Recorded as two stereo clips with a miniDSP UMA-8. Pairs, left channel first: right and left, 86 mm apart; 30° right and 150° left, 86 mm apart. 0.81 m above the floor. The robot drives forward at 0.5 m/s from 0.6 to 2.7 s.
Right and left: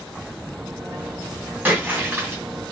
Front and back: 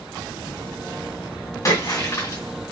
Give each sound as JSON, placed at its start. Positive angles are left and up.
{"t": 1.6, "sound": "a splash", "azimuth_deg": 20, "distance_m": 2.0}